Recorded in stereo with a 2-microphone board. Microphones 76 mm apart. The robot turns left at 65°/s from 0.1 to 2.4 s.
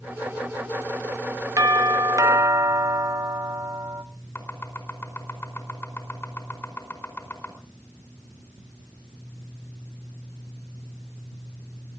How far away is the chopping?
About 4.5 m.